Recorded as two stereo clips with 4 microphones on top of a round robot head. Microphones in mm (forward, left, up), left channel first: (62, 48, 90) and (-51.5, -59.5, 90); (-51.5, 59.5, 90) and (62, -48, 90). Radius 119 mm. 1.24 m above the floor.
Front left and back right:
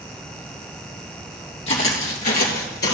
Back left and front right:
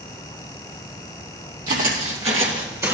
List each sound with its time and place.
1.7 s footsteps: 10° right, 3 m; by 2.9 s 35° left, 2.0 m